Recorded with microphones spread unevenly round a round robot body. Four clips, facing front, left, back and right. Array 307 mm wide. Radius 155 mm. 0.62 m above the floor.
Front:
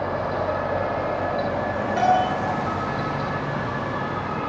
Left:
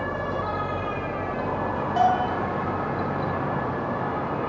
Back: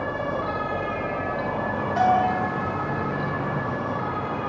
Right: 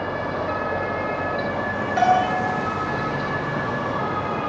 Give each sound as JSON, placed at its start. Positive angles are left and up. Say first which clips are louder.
{"t": 2.0, "sound": "a bell", "louder": "right 3 dB, even", "azimuth_deg": 85, "distance_m": 9.0}